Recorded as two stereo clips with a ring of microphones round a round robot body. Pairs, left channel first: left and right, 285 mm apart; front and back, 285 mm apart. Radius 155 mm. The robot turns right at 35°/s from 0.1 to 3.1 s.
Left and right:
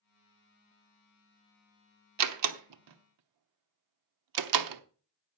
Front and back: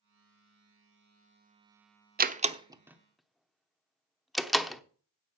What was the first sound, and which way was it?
A door slam, 120° right.